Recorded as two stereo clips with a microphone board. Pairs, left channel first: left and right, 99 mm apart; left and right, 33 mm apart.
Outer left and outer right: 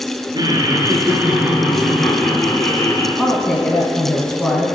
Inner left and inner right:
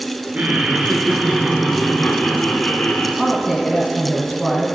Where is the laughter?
40° right (ahead or behind), 2.5 m; by 3.1 s 20° left (ahead or behind), 3.5 m.